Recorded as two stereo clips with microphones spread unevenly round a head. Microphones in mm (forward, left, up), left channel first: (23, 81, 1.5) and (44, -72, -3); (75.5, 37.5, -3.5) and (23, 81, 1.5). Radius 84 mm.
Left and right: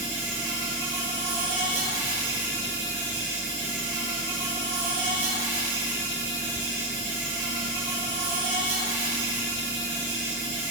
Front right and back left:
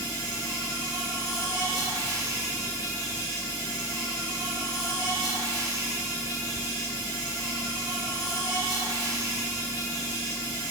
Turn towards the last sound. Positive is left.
turn(degrees=-100)